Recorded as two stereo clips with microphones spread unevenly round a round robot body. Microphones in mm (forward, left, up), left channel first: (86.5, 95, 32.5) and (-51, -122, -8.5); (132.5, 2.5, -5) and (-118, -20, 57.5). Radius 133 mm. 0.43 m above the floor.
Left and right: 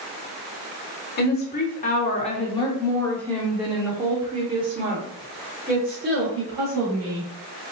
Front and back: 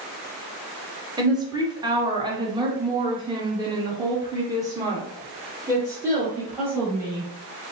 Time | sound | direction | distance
1.2 | a woman speaking | 100° left | 1.6 m